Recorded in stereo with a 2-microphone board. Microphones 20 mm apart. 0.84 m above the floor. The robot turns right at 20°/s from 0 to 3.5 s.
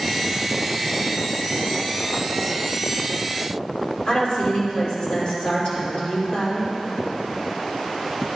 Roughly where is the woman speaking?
Left.